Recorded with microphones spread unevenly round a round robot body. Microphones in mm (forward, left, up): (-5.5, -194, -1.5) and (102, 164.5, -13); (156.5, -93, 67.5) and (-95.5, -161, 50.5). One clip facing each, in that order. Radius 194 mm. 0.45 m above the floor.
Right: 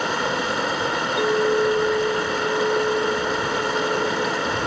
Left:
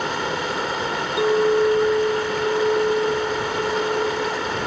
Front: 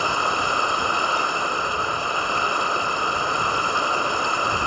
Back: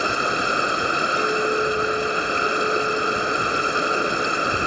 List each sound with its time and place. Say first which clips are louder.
0.0 s running water: right 1 dB, back 3 dB; 95° right
1.2 s a clink: left 3 dB, back 8 dB; 145° left